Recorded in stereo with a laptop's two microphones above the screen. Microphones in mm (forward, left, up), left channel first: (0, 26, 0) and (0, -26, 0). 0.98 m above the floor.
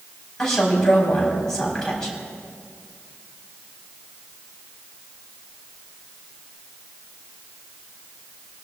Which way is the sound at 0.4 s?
10° left (ahead or behind).